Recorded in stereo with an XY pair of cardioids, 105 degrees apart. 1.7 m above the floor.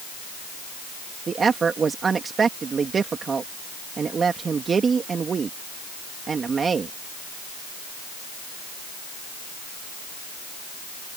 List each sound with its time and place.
1.3 s a woman speaking: 40° right